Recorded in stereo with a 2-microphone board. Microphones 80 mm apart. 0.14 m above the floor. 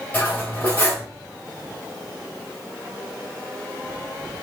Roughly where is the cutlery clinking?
Left.